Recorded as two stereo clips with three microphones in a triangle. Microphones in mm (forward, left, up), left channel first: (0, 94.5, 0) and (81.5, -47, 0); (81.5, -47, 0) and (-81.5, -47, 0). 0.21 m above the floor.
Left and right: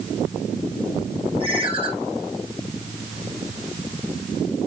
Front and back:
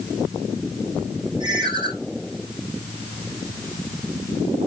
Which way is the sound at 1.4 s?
115° right.